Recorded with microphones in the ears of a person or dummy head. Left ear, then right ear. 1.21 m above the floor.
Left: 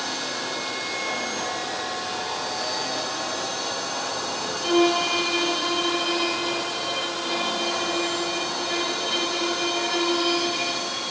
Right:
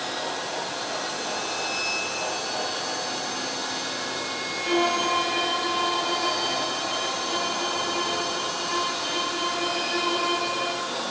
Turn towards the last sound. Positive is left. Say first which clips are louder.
# left 3 dB
turn(degrees=45)  # may be behind; listen again after turning